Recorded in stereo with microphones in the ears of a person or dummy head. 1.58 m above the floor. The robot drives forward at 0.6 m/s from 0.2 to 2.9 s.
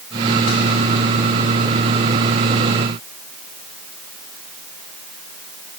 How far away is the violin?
I don't hear a violin.